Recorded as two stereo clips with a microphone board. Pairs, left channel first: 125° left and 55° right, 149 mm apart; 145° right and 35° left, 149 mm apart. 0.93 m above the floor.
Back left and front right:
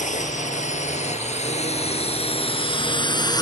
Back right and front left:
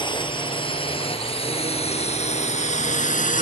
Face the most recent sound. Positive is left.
turn(degrees=-170)